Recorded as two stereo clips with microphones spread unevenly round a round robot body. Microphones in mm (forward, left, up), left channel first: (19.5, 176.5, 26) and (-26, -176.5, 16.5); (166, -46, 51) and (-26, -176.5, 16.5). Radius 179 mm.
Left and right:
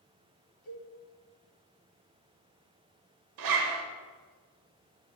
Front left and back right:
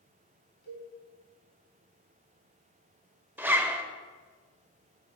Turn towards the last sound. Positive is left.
turn(degrees=-65)